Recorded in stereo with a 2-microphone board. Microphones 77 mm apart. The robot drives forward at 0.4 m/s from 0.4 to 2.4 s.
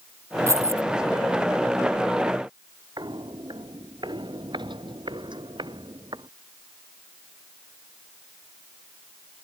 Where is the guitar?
No guitar in this recording.